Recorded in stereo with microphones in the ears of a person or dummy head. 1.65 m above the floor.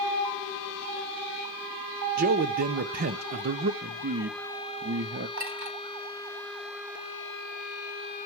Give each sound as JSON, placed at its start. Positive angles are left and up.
{"t": 2.2, "sound": "a man speaking", "side_deg": -45, "distance_m": 0.6}
{"t": 3.8, "sound": "a man speaking", "side_deg": -50, "distance_m": 0.6}
{"t": 5.4, "sound": "a clink", "side_deg": -60, "distance_m": 2.5}